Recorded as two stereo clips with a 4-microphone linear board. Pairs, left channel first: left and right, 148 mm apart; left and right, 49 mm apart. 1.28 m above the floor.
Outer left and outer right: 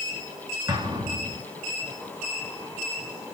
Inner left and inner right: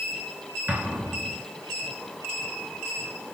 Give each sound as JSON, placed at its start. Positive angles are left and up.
{"t": 0.7, "sound": "an explosion", "side_deg": -25, "distance_m": 2.5}